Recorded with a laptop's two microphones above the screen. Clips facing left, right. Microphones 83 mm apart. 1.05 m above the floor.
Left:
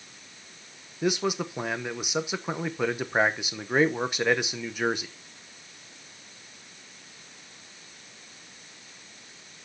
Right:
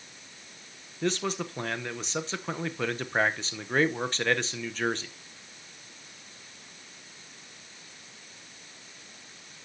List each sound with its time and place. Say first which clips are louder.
1.0 s a man speaking: left 3 dB; 10° left (ahead or behind), 0.7 m